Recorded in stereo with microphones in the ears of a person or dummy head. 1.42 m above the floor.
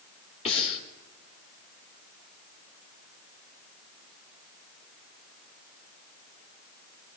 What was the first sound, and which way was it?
Breathing, 35° left (ahead or behind).